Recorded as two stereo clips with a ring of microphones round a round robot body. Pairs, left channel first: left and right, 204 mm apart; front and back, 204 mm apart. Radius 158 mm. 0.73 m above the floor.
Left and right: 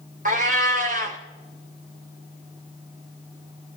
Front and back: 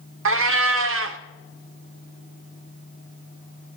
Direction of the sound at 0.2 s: 150° right.